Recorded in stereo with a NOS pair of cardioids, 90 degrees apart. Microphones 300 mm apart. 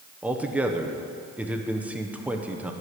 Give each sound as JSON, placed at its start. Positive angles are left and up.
{"t": 0.2, "sound": "a man speaking", "azimuth_deg": -5, "distance_m": 1.0}